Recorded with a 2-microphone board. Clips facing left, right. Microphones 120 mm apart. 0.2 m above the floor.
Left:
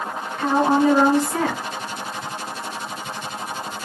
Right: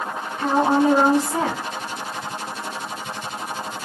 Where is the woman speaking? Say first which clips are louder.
Even; 15° right (ahead or behind), 1.8 m.